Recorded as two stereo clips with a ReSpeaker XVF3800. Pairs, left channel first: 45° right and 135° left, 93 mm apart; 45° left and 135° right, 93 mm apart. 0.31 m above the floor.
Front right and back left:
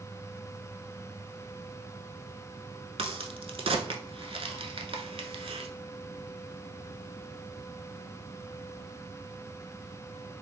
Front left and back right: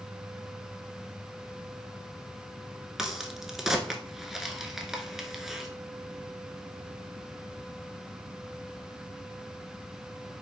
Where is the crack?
140° left, 0.6 m.